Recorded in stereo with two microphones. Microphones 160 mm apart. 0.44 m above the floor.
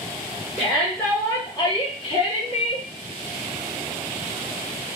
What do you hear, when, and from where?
0.6 s a shout: 5° right (ahead or behind), 1.2 m; by 2.9 s 50° left (ahead or behind), 1.6 m